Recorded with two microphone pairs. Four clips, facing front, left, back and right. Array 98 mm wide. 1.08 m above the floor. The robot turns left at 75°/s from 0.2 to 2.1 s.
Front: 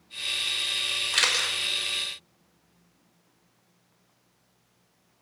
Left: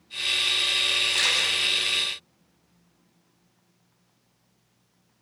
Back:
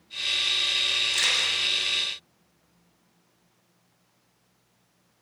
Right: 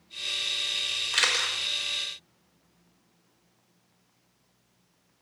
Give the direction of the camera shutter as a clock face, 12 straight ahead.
1 o'clock.